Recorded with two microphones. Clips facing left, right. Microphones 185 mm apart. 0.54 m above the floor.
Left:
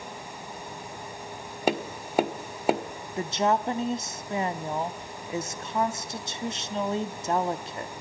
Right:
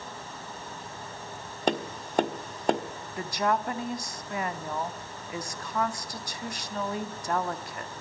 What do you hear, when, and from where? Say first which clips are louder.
1.7 s tapping: left 1 dB; 10° left (ahead or behind), 1.1 m
3.2 s a woman speaking: left 3 dB; 25° left (ahead or behind), 0.8 m